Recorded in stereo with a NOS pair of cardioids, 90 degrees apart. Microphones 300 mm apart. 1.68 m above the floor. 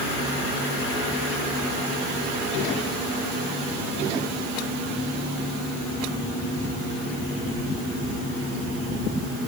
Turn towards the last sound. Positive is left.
No sound to turn to.